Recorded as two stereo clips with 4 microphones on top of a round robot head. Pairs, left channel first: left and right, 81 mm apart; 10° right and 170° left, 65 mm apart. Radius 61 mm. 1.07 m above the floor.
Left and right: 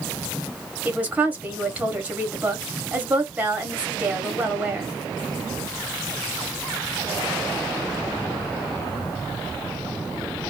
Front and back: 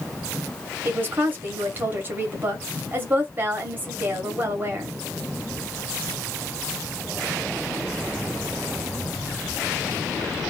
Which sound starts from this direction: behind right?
A woman speaking, at 0.8 s.